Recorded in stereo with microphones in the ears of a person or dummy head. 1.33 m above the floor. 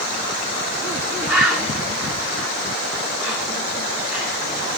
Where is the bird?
10° right (ahead or behind), 5.5 m.